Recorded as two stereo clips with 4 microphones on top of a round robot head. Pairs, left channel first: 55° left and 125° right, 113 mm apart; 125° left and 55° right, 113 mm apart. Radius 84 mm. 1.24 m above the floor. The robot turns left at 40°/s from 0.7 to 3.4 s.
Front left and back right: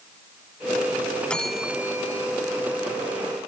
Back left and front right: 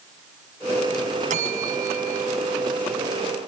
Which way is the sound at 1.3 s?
30° right.